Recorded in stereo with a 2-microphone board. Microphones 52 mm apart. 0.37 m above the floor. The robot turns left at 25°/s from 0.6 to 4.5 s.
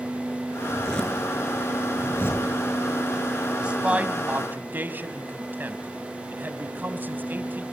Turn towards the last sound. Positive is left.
turn(degrees=-40)  # may be behind; listen again after turning